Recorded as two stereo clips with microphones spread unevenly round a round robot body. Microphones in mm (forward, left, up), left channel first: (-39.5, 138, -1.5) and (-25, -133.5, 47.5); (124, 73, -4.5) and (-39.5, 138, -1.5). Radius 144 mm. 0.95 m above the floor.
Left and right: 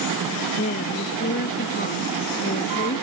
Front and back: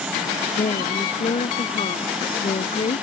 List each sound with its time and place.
0.6 s a woman speaking: 30° left